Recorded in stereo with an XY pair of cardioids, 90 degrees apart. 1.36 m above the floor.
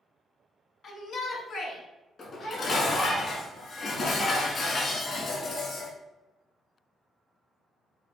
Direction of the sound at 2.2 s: 60° left.